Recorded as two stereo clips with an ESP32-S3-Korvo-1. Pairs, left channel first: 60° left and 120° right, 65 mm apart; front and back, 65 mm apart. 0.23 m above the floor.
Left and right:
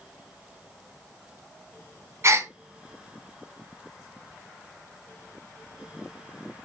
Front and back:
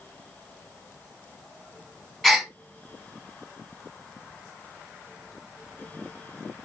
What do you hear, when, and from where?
2.2 s a gasp: 85° right, 1.6 m